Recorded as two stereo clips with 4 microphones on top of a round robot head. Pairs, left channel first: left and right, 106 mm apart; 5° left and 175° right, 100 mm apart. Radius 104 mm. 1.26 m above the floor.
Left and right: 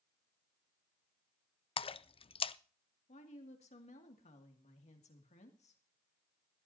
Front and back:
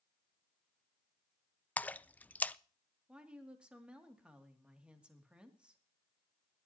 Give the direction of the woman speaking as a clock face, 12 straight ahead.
8 o'clock.